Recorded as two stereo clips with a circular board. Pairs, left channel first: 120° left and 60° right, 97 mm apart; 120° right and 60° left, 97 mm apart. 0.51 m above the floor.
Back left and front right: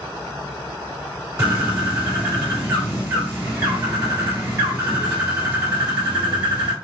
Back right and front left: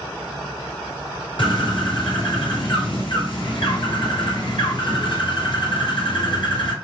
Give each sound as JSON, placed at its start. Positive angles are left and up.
{"t": 1.4, "sound": "a bird", "azimuth_deg": -120, "distance_m": 2.5}